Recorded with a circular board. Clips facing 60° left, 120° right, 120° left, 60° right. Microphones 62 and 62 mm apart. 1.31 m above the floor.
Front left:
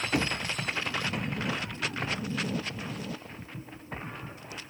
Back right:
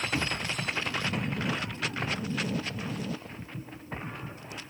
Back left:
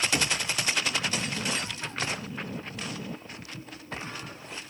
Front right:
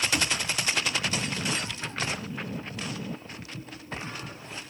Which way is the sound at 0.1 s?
60° left.